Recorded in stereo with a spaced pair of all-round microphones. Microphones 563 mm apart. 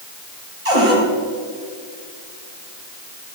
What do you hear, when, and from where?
0.7 s a cupboard door: 75° right (ahead or behind), 3.5 m